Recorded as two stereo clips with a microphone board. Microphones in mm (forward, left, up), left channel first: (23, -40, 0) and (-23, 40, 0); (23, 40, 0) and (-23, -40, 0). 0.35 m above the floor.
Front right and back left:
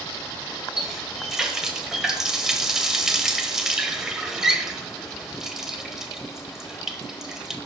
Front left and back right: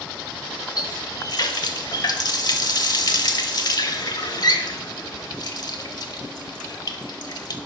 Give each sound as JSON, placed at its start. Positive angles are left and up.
{"t": 0.8, "sound": "a running tap", "azimuth_deg": 35, "distance_m": 0.9}